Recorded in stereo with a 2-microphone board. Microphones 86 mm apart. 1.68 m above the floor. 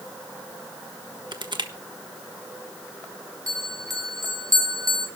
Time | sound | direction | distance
1.3 | crushing | 60° right (ahead or behind) | 1.3 m
3.5 | a bell | 45° right (ahead or behind) | 2 m